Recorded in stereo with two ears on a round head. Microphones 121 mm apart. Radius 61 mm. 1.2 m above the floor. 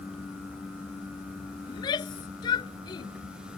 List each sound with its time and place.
1.7 s a shout: 35° left (ahead or behind)